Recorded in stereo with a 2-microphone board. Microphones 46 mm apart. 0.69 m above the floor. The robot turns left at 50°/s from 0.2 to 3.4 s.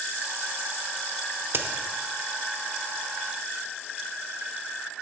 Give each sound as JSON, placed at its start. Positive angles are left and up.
{"t": 1.5, "sound": "a crack", "side_deg": -50, "distance_m": 0.8}